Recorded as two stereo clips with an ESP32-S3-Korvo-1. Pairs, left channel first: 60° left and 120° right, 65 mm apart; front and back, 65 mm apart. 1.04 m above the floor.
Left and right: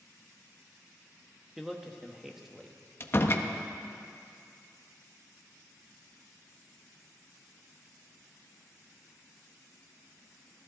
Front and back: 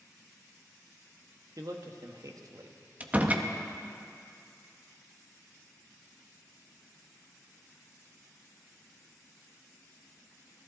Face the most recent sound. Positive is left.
turn(degrees=115)